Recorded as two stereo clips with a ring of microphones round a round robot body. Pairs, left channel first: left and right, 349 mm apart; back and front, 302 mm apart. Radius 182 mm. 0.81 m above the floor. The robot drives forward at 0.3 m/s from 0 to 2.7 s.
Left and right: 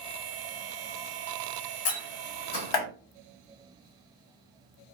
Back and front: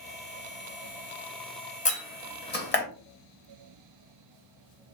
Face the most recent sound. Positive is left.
turn(degrees=125)